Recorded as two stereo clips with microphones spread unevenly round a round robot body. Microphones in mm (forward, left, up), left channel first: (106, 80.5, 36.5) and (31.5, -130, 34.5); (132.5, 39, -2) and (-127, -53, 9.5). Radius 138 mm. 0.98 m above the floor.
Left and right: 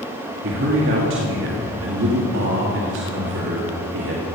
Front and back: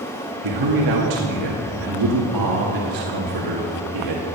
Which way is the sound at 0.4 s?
150° right.